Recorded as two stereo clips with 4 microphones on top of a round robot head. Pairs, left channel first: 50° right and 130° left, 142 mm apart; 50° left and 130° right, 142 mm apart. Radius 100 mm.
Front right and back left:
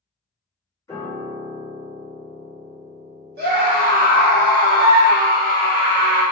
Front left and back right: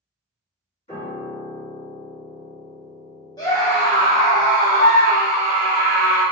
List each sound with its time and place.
0.9 s a piano: 15° left, 1.4 m
3.4 s a scream: 115° left, 0.7 m